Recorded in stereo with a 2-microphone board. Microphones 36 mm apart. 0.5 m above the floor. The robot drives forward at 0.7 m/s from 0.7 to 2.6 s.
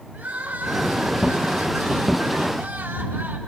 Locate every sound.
0.1 s crying: 40° right (ahead or behind), 4 m; by 3.4 s 55° right (ahead or behind), 3 m